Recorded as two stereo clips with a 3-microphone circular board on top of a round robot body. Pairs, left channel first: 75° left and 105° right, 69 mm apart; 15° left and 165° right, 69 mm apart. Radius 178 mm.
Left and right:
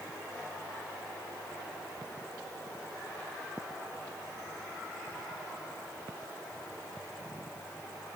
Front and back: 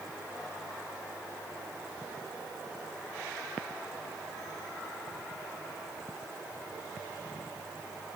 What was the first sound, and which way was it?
Only background noise.